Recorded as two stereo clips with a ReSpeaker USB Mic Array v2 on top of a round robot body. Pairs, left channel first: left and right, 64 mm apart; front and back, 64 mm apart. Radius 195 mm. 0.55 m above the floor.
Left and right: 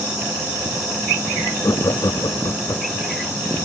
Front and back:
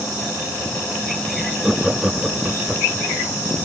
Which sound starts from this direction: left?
Laughter, at 1.6 s.